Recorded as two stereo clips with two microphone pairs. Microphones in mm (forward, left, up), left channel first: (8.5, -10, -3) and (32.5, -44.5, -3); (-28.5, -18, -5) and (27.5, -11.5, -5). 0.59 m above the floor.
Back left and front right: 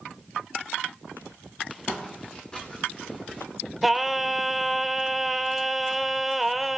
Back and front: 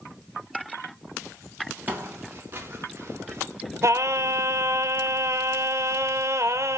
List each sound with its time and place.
1.9 s footsteps: 60° left, 5.5 m; by 3.5 s 55° left, 4.5 m
3.8 s singing: 30° left, 1.0 m